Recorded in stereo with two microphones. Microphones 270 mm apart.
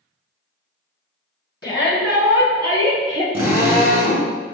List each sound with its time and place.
1.6 s a shout: 15° left (ahead or behind), 1.2 m; by 3.2 s 30° right (ahead or behind), 1.6 m
3.3 s a drill: 10° right (ahead or behind), 1.4 m